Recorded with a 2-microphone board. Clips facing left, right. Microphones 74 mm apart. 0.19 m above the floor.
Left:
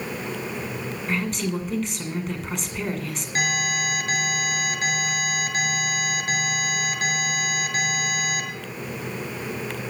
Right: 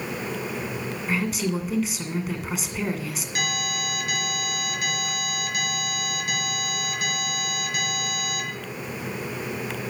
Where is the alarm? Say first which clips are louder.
Left 5 dB; 35° left (ahead or behind), 4.5 m.